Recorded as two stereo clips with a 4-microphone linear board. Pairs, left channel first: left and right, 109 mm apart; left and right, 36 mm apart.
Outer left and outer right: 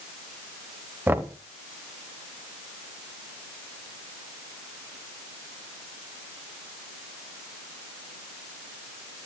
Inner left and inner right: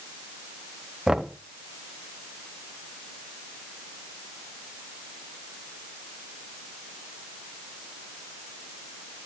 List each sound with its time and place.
1.1 s knocking: 20° right (ahead or behind), 0.7 m